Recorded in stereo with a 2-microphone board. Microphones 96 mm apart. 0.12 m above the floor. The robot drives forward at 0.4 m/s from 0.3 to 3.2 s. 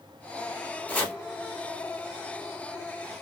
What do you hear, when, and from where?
0.9 s chopping: 15° left (ahead or behind), 1.6 m